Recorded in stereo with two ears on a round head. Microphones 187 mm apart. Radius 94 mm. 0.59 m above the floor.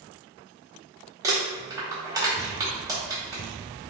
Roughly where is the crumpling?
Centre.